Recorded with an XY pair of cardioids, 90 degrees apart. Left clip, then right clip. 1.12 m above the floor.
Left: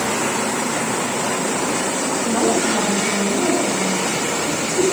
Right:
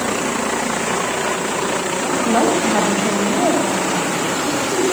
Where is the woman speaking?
60° right, 5.5 m.